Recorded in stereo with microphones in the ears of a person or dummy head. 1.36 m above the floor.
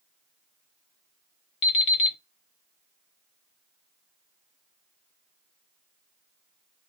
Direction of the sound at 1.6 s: 25° left (ahead or behind).